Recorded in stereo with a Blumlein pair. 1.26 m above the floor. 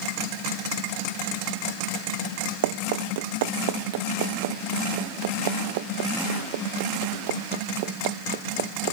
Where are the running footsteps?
55° right; by 8.9 s 50° right.